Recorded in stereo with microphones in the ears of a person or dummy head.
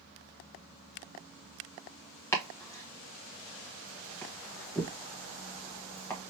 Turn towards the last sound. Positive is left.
turn(degrees=15)  # may be behind; listen again after turning